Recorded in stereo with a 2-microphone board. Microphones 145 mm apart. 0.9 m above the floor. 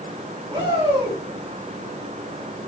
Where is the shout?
35° right (ahead or behind), 5.5 m.